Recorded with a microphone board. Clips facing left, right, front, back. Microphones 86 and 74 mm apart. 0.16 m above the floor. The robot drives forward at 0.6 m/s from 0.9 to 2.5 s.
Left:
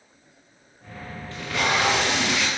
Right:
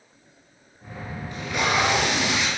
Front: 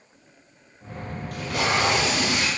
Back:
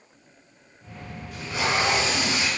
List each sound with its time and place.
1.3 s tape being pulled: 15° right, 4 m; by 2.5 s 20° right, 3.5 m